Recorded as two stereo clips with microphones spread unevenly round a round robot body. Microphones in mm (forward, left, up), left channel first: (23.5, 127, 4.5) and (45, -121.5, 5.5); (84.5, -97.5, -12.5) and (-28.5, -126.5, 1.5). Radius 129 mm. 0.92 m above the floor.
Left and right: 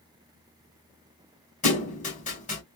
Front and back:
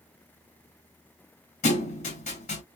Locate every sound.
1.6 s a thud: 35° left, 2 m